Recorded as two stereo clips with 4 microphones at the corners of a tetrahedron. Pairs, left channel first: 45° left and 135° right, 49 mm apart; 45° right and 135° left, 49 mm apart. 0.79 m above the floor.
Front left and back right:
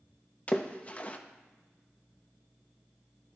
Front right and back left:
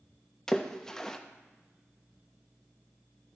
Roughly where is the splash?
Ahead.